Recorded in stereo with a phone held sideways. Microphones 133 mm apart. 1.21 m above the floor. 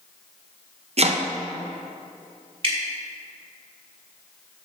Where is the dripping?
45° right (ahead or behind), 1.9 m.